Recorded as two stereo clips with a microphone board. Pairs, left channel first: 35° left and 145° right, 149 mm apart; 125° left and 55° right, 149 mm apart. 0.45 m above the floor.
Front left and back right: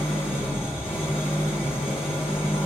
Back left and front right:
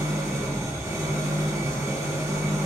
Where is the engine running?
10° left, 1.4 m.